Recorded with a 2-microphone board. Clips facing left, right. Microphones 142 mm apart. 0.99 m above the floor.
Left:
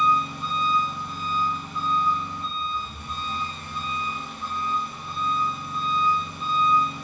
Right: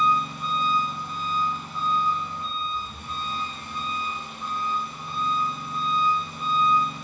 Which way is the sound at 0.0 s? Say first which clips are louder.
Left 1 dB; 10° right (ahead or behind).